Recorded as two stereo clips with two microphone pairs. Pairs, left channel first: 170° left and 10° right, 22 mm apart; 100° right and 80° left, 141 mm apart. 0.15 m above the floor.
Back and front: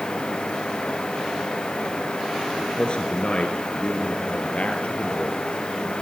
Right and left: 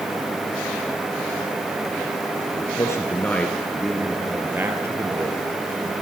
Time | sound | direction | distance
2.5 | a man speaking | 155° right | 2 m